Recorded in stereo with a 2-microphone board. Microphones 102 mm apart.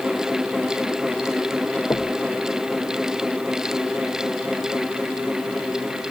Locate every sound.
1.9 s knocking: 30° left (ahead or behind)